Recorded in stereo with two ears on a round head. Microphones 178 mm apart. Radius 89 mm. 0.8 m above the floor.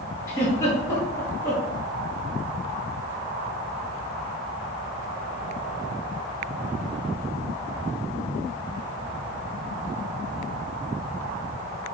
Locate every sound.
0.3 s a giggle: 15° left (ahead or behind), 1.4 m